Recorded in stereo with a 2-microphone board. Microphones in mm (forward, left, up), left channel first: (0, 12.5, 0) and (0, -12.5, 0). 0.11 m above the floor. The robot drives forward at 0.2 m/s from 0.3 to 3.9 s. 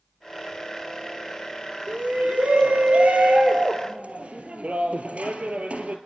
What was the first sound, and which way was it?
A shout, 60° right (ahead or behind).